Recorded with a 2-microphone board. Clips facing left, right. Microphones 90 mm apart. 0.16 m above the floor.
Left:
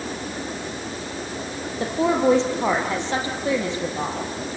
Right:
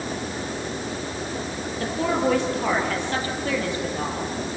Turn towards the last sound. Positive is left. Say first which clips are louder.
# left 4 dB
turn(degrees=25)  # may be behind; listen again after turning